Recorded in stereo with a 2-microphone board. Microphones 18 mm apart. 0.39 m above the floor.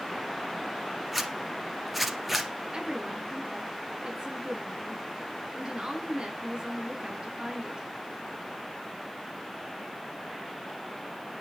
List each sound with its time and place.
1.1 s a zipper: 5° right (ahead or behind), 2 m
2.7 s a woman speaking: 45° right (ahead or behind), 5 m